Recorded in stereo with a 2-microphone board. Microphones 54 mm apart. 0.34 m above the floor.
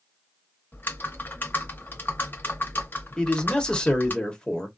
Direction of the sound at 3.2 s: 15° left (ahead or behind).